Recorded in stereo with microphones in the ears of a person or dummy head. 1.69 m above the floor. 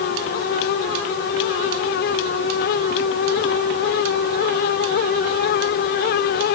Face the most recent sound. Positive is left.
No sound to turn to.